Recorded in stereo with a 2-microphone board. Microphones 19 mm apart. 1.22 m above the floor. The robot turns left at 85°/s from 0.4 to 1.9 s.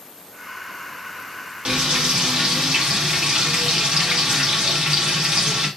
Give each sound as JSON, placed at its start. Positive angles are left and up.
{"t": 1.6, "sound": "frying", "side_deg": -80, "distance_m": 1.7}